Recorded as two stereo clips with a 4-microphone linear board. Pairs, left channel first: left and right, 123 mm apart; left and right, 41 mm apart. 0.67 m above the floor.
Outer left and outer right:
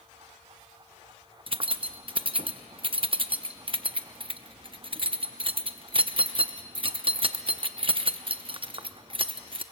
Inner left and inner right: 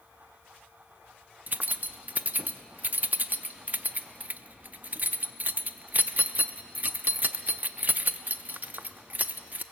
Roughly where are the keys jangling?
Right.